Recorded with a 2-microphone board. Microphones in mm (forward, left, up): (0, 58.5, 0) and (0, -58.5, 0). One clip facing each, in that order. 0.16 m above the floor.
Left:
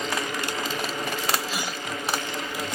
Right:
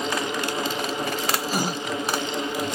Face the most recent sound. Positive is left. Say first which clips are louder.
# right 6 dB
turn(degrees=-40)  # may be behind; listen again after turning